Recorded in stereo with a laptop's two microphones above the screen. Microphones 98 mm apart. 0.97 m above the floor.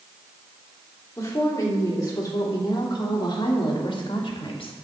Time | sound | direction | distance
1.2 | a woman speaking | 30° left (ahead or behind) | 3 m